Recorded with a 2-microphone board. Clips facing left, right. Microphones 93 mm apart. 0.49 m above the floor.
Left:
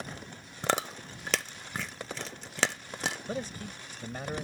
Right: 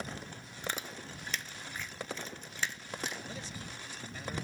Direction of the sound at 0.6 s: 70° left (ahead or behind).